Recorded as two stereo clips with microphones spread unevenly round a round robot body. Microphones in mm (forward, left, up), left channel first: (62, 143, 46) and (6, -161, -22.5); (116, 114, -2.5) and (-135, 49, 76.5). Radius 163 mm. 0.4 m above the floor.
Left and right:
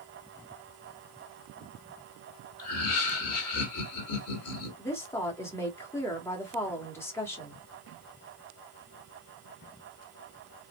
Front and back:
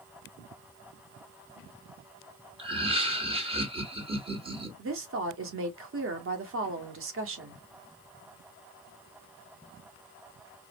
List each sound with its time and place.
2.6 s laughter: 115° left, 1.8 m
4.8 s a woman speaking: 175° left, 1.2 m